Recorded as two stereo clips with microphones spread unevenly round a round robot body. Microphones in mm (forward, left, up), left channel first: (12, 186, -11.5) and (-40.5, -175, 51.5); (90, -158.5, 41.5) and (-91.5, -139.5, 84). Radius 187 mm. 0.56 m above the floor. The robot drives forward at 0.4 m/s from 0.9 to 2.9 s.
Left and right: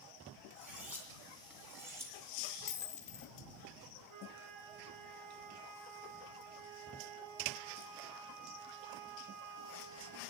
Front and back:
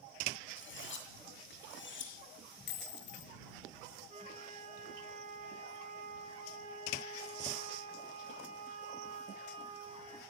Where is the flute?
135° right, 1.6 m.